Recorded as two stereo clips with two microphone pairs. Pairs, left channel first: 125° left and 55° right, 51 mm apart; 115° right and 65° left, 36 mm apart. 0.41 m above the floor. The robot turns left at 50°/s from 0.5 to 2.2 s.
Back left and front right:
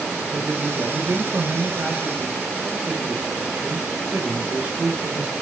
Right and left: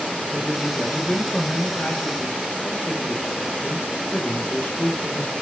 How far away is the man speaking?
About 2 m.